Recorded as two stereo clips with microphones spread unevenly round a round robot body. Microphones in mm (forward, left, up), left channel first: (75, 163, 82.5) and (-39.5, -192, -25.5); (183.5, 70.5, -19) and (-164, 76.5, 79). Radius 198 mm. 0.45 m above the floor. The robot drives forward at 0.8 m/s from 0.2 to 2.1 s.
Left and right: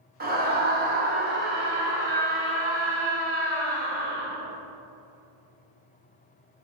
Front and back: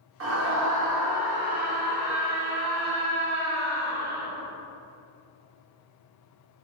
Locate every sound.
0.2 s a scream: 125° right, 1.5 m; by 4.3 s 160° right, 2.5 m